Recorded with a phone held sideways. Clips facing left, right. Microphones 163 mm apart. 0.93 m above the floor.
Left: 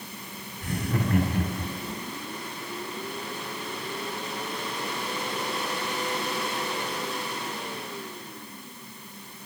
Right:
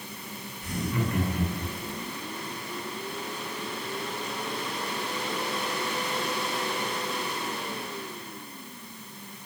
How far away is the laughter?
About 3.5 m.